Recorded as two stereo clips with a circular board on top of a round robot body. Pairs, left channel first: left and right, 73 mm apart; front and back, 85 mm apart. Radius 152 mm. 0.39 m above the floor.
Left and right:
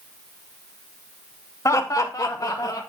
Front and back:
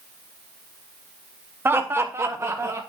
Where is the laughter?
120° left, 1.4 m; by 2.8 s 125° left, 2.5 m.